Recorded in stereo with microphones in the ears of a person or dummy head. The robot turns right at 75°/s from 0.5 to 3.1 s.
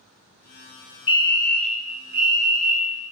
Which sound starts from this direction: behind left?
A fire alarm, at 1.1 s.